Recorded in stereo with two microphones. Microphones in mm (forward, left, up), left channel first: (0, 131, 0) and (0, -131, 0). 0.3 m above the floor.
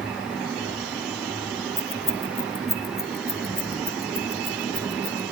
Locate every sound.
1.8 s keys jangling: 55° left (ahead or behind), 1.2 m; by 5.2 s 40° left (ahead or behind), 2.5 m